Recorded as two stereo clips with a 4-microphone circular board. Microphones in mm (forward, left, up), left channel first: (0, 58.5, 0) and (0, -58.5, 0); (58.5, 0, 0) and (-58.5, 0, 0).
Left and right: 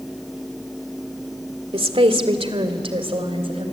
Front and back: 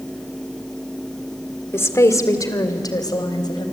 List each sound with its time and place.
1.7 s a woman speaking: 65° right, 1.7 m; by 3.6 s 50° right, 4 m